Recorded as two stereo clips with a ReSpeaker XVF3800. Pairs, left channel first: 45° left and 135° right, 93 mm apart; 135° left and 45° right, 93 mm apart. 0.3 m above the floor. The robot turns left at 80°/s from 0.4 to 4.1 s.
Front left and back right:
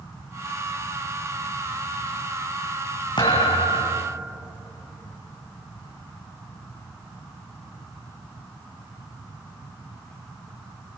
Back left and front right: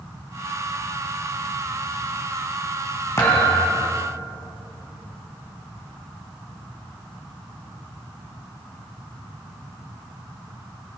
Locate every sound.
3.2 s a thud: 75° left, 5 m; by 4.1 s 5° left, 5 m